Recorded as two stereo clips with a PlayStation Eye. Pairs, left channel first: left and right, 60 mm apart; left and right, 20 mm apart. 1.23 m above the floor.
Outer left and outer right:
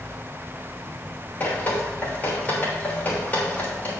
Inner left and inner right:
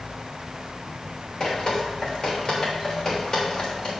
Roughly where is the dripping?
Left.